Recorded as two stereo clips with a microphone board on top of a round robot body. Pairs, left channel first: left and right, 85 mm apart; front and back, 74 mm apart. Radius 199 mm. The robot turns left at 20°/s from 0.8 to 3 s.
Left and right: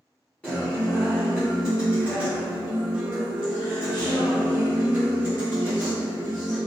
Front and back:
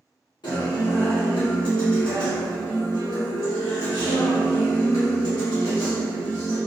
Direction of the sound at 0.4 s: 10° left.